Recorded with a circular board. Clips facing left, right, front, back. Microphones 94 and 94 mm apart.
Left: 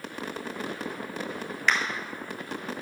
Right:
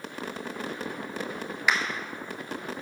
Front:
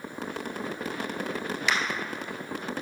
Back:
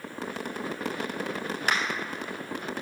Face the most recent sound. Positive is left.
turn(degrees=-170)